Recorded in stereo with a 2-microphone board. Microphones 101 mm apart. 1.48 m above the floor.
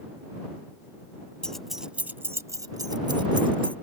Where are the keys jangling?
10° left (ahead or behind); by 3.8 s 55° right (ahead or behind).